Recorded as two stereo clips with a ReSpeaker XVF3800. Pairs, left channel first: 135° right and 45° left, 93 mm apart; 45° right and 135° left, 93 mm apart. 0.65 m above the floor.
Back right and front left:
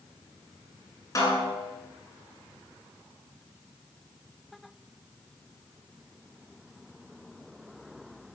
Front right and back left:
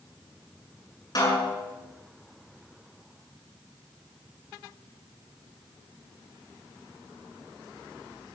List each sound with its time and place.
1.1 s a snare drum: 85° right, 9 m